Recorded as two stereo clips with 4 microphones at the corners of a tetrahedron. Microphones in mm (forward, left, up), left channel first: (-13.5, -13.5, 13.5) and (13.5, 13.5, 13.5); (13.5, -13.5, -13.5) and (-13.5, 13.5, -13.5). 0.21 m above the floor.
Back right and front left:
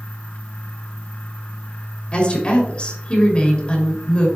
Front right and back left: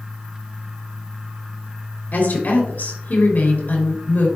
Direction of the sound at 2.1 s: 75° right.